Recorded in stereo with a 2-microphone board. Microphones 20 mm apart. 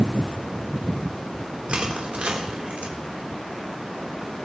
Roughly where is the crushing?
Right.